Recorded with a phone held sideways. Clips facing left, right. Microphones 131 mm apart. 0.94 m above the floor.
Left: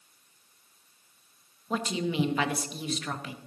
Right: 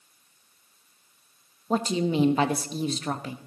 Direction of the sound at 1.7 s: 35° right (ahead or behind).